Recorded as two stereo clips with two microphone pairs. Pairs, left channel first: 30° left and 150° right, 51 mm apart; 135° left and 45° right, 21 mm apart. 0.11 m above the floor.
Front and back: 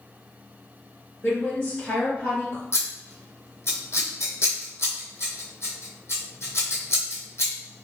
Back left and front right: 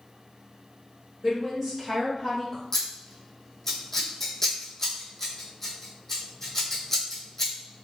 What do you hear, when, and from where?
1.2 s a woman speaking: 5° right, 1.5 m; by 2.6 s 70° left, 1.8 m
2.7 s scissors: 65° left, 1.1 m